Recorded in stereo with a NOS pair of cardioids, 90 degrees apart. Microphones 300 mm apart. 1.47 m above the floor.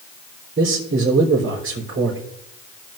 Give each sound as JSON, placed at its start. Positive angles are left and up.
{"t": 0.6, "sound": "a man speaking", "azimuth_deg": -40, "distance_m": 4.0}